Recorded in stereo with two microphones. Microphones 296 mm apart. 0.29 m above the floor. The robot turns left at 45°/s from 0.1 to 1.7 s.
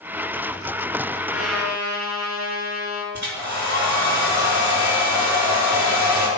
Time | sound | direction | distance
1.3 | a trumpet | 45° right (ahead or behind) | 2.5 m
3.1 | a hair dryer | 70° right (ahead or behind) | 4 m